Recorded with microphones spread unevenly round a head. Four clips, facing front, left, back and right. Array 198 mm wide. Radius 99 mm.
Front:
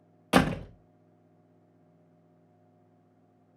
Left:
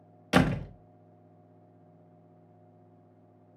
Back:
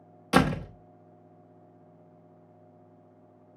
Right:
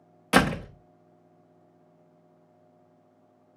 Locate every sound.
0.3 s a door slam: straight ahead, 1.1 m